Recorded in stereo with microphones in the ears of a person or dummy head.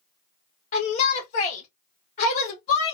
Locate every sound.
0.7 s a shout: 40° left (ahead or behind), 1.6 m